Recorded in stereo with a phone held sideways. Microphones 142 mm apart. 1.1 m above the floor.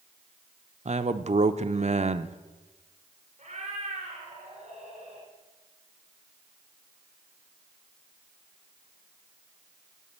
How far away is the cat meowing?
About 2.5 m.